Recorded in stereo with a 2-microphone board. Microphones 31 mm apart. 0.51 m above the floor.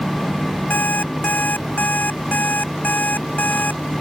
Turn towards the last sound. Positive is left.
turn(degrees=75)  # may be behind; listen again after turning